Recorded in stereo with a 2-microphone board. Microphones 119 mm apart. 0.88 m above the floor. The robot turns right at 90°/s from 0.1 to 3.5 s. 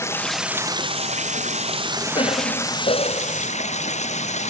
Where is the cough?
45° left; by 3.4 s 155° left.